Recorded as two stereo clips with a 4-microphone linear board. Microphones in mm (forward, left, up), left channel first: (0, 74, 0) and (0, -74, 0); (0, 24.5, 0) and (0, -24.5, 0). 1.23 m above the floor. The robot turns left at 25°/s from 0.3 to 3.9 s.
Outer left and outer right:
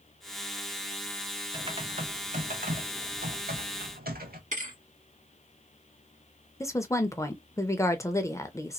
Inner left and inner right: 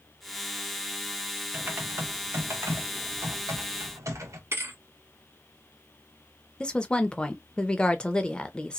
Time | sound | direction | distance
1.5 | typing on a keyboard | 35° right | 0.9 m
4.5 | a thud | 60° right (ahead or behind) | 1.4 m
6.6 | a woman speaking | 20° left (ahead or behind) | 0.6 m